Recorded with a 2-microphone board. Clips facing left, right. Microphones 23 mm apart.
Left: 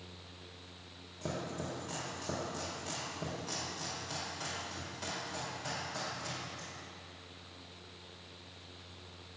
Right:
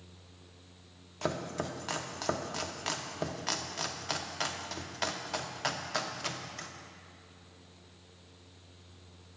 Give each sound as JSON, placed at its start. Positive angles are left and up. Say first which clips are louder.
{"t": 1.2, "sound": "chopping", "louder": "right 5 dB", "side_deg": -60, "distance_m": 0.6}